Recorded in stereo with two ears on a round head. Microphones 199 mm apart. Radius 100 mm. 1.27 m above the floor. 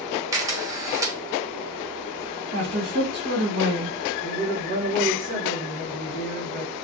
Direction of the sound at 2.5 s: 55° right (ahead or behind).